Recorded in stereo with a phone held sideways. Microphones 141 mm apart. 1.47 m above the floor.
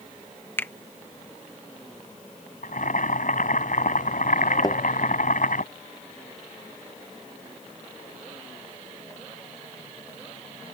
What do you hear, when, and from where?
0.6 s a finger snap: 15° left (ahead or behind)
2.6 s boiling: 70° left (ahead or behind)
4.6 s a thud: 30° left (ahead or behind)